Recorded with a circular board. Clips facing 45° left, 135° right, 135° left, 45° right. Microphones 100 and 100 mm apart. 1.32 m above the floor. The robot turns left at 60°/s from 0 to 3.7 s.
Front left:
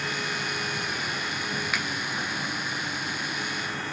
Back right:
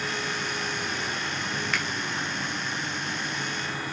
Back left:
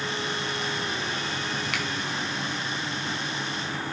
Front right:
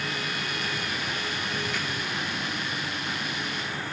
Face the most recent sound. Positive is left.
turn(degrees=10)